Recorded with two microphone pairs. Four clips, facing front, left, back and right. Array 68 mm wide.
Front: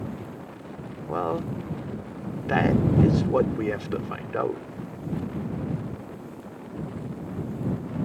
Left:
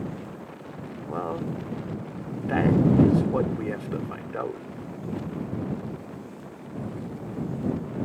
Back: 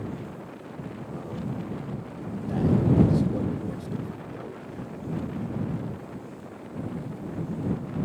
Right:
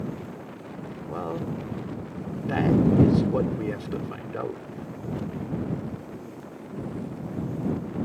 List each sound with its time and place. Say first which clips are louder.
1.1 s a man speaking: left 1 dB, front 10 dB; 20° left